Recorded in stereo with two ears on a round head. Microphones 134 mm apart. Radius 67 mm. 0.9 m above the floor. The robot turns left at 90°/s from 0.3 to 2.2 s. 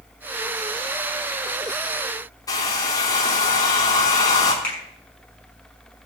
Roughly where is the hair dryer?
Left.